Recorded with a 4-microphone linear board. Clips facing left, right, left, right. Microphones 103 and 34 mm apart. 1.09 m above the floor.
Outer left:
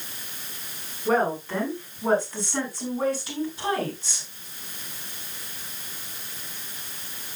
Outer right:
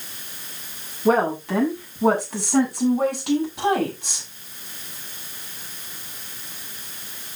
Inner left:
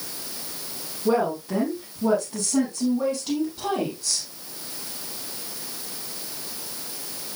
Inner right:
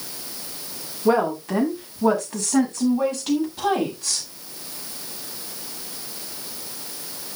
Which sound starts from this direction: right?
A woman speaking, at 1.1 s.